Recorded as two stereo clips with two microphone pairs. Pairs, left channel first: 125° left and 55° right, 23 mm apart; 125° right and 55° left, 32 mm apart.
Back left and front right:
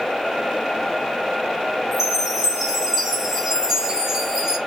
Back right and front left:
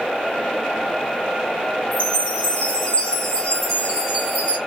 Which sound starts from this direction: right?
A chime, at 1.9 s.